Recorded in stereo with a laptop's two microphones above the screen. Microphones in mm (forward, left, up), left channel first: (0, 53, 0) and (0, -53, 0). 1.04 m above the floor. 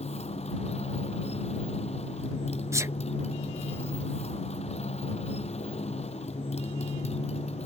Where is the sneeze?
25° right (ahead or behind).